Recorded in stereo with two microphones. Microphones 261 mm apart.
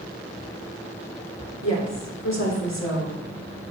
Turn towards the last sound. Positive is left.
turn(degrees=80)